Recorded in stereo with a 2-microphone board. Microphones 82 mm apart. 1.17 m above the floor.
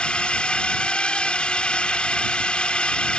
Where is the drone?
10° left (ahead or behind).